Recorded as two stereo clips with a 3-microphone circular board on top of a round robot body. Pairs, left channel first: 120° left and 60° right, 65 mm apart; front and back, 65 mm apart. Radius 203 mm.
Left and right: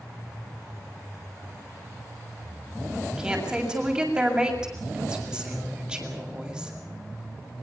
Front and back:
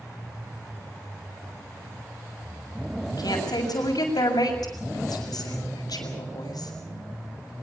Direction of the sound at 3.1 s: 20° left.